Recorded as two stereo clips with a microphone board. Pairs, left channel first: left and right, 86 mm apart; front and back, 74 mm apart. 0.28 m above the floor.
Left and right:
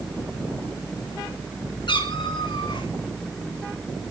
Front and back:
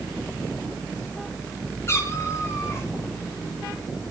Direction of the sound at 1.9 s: 55° left.